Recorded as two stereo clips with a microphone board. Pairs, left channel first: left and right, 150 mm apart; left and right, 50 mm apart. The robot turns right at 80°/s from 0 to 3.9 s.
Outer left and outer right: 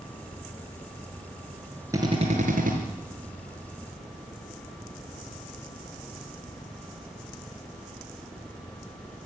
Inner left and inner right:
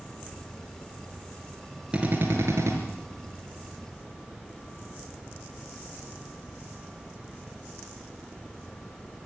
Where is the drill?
160° right, 4.5 m; by 2.8 s 95° right, 4.5 m.